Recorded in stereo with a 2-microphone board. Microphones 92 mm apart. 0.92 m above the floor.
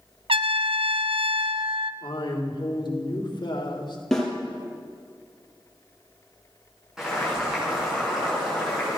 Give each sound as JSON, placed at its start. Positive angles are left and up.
{"t": 0.3, "sound": "a trumpet", "side_deg": -75, "distance_m": 0.7}
{"t": 2.0, "sound": "a man speaking", "side_deg": 55, "distance_m": 3.0}
{"t": 4.1, "sound": "a snare drum", "side_deg": 5, "distance_m": 4.0}
{"t": 7.0, "sound": "boiling", "side_deg": -5, "distance_m": 8.0}